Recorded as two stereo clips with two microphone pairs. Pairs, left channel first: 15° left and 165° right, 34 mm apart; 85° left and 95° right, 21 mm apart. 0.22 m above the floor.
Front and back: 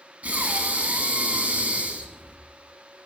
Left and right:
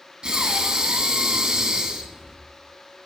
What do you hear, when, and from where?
0.2 s breathing: 135° right, 0.6 m